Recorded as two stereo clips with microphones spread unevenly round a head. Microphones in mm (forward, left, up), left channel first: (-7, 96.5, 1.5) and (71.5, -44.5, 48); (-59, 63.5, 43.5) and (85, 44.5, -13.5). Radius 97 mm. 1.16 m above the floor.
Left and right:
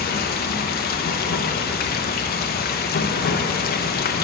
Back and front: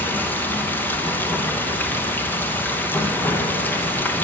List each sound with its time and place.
0.0 s running water: 90° left, 0.9 m